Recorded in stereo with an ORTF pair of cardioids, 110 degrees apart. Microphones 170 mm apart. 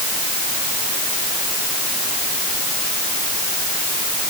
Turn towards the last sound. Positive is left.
No sound to turn to.